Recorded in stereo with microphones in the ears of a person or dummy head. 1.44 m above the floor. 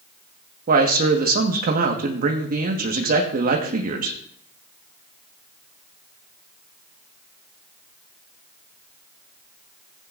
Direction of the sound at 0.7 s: 50° right (ahead or behind).